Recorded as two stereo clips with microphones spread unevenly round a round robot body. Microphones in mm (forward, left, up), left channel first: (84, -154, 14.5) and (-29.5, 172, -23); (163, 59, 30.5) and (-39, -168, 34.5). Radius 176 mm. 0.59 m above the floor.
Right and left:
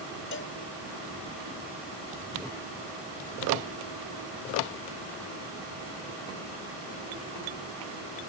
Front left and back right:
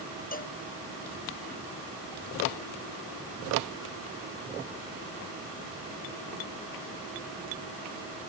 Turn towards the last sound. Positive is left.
turn(degrees=-15)